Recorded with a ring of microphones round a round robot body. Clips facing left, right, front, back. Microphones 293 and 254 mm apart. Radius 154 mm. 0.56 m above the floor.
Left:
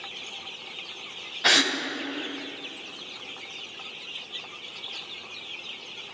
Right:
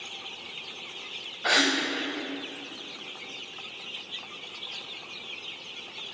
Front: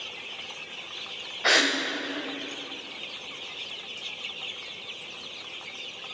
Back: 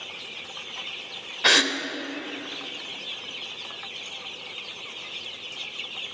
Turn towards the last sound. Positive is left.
turn(degrees=135)